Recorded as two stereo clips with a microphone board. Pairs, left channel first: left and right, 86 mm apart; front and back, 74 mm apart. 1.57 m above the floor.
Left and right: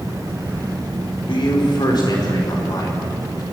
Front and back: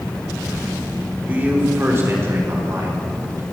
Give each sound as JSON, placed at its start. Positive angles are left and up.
{"t": 1.3, "sound": "a man speaking", "azimuth_deg": 115, "distance_m": 4.5}